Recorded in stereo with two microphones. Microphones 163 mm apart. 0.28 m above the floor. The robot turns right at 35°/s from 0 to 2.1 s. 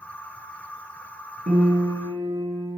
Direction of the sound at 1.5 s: 55° right (ahead or behind).